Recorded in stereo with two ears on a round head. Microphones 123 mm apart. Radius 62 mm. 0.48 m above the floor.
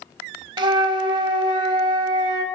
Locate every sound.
0.6 s a flute: 35° right (ahead or behind), 0.5 m